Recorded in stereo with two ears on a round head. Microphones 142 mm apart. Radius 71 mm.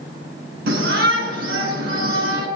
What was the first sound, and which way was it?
A shout, 70° right (ahead or behind).